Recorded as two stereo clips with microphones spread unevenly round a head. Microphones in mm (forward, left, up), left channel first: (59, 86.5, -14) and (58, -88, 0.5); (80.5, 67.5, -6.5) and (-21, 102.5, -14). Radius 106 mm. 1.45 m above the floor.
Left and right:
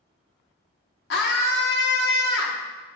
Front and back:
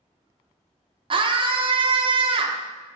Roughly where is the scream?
Behind left.